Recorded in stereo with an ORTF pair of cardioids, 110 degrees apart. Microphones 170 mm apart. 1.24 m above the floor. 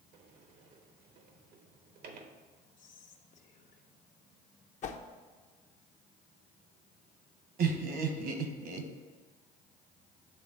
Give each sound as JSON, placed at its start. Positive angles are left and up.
{"t": 0.1, "sound": "a sliding door", "azimuth_deg": -70, "distance_m": 1.0}
{"t": 2.8, "sound": "whispering", "azimuth_deg": 50, "distance_m": 1.5}
{"t": 4.8, "sound": "a whoosh", "azimuth_deg": 45, "distance_m": 0.8}
{"t": 7.6, "sound": "laughter", "azimuth_deg": -70, "distance_m": 1.4}